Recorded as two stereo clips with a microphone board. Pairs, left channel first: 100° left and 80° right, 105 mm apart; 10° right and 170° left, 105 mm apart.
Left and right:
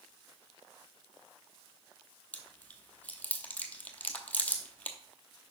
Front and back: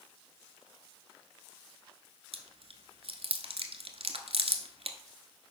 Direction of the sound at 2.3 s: 175° left.